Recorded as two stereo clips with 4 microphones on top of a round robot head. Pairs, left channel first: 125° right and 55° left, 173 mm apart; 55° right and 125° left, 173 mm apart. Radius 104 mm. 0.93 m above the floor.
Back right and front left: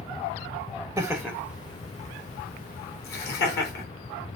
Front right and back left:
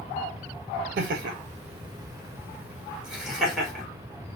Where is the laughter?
130° left, 0.5 m; by 3.9 s 145° right, 1.5 m.